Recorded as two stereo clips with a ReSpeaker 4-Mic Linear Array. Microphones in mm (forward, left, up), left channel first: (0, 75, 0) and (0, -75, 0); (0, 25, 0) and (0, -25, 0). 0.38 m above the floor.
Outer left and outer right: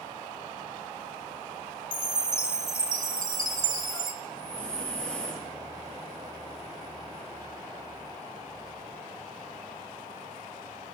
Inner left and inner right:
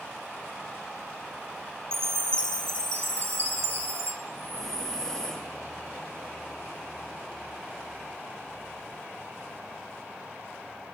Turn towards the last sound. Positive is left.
turn(degrees=10)  # may be behind; listen again after turning